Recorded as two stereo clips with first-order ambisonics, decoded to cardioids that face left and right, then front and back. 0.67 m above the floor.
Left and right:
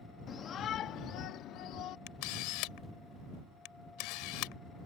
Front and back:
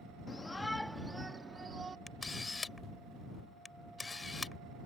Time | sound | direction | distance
0.3 | a shout | 60° left | ?
2.1 | a camera shutter | 80° left | ?